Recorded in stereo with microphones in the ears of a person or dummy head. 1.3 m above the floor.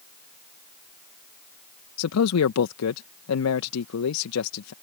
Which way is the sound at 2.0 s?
90° left.